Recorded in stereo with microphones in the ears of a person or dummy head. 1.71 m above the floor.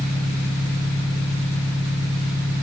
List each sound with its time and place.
0.0 s an engine running: 50° left (ahead or behind), 1.8 m